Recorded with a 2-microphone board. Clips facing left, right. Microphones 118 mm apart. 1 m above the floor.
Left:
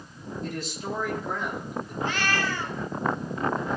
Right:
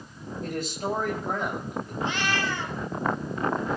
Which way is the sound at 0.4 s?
55° right (ahead or behind).